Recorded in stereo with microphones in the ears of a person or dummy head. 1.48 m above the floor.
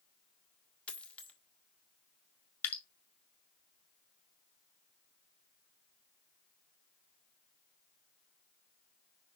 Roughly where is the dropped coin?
Centre.